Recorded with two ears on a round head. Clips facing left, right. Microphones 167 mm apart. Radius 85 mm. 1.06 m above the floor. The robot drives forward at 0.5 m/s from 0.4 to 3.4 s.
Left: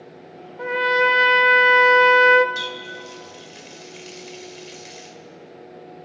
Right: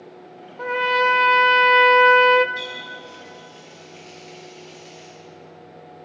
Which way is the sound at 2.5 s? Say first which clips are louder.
Left 2 dB; 85° left.